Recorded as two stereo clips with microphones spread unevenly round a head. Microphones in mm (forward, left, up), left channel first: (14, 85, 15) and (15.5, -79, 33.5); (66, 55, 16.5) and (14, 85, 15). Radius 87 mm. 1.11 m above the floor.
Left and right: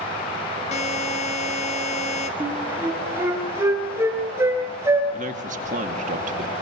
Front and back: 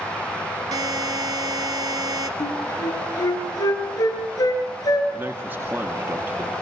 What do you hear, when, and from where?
0.7 s a buzzer: 145° left, 1.7 m
2.4 s a flute: 15° right, 4 m
5.1 s a man speaking: 140° right, 2 m